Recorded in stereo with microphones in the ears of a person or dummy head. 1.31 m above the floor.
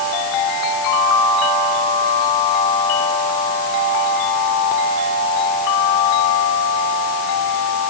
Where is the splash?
I don't hear a splash.